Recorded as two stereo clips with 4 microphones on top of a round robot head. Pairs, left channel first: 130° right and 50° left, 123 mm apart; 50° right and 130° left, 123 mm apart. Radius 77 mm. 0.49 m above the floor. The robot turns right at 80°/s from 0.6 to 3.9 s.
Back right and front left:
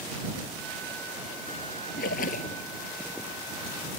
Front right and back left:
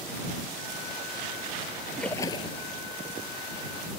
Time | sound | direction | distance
2.0 | a splash | 135° right | ?